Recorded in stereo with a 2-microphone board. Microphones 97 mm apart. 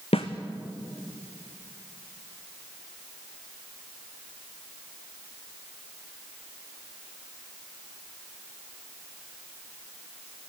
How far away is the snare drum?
About 1.8 m.